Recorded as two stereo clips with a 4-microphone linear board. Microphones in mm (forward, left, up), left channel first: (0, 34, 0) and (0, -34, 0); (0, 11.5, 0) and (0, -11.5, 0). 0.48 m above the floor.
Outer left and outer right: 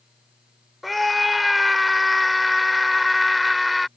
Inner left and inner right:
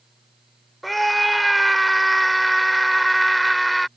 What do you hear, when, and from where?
0.8 s a scream: centre (ahead or behind)